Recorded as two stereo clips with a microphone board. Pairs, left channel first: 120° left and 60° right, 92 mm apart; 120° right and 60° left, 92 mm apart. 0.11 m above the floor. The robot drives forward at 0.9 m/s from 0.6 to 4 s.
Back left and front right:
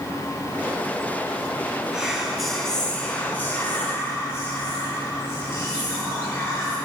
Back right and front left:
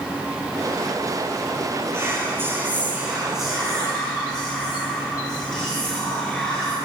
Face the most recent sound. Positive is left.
turn(degrees=160)